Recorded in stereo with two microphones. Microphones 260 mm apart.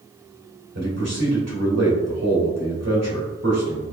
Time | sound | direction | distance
0.8 | a man speaking | 80° right | 1.9 m